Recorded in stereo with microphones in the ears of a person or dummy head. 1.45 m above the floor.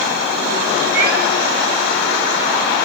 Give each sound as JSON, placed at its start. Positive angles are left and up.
{"t": 0.9, "sound": "a cat meowing", "side_deg": -60, "distance_m": 3.0}